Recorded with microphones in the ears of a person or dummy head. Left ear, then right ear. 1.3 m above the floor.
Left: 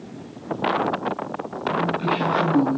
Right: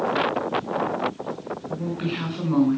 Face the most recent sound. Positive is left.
turn(degrees=-35)  # may be behind; listen again after turning